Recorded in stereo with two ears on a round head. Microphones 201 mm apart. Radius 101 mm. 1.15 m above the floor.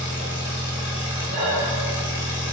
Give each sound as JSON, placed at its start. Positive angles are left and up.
{"t": 0.0, "sound": "an engine running", "side_deg": 50, "distance_m": 1.2}
{"t": 1.3, "sound": "breathing", "side_deg": 30, "distance_m": 1.8}